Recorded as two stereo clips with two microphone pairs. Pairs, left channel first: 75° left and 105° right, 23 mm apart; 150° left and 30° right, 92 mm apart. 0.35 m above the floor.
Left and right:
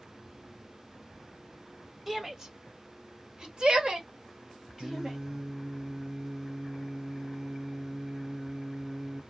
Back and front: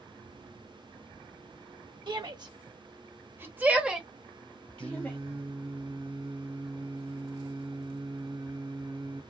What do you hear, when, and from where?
2.1 s a shout: 25° right, 1.3 m; by 5.2 s 145° right, 1.5 m
4.8 s singing: 25° right, 1.3 m